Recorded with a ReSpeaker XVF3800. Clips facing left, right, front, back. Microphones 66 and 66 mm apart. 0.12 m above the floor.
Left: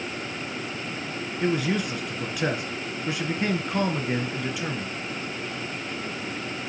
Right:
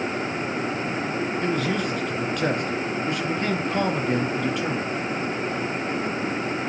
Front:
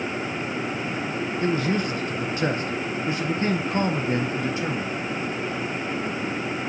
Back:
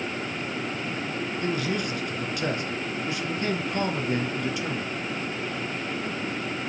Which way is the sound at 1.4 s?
15° left.